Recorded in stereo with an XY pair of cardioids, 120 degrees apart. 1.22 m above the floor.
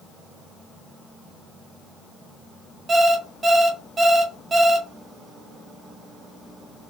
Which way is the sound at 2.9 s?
30° right.